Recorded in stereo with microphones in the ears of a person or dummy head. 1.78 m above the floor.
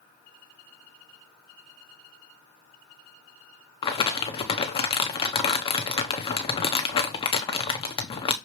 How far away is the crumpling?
About 1.0 m.